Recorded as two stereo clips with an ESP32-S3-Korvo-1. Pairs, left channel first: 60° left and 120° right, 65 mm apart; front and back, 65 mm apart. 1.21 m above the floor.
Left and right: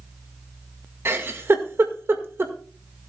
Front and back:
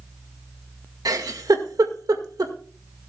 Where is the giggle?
170° right, 1.7 m.